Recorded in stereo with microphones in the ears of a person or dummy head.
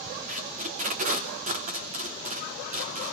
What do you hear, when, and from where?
0.3 s tape being pulled: 50° right (ahead or behind), 3 m